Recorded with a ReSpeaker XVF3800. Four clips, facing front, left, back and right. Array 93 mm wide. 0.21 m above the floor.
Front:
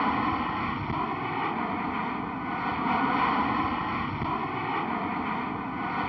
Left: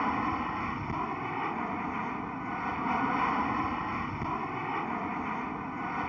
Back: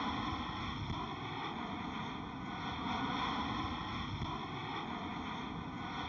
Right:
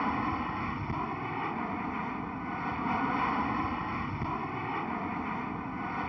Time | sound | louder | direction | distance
0.0 | an aircraft | left 1 dB, front 12 dB | 10° left | ?